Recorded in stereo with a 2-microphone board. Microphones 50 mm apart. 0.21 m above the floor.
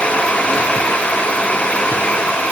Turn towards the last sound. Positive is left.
No sound to turn to.